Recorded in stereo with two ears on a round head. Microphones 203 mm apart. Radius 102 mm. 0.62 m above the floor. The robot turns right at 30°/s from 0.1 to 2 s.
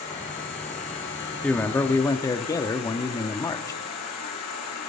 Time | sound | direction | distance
0.0 | an insect | 30° left | 7.5 m
1.4 | a man speaking | 5° left (ahead or behind) | 0.7 m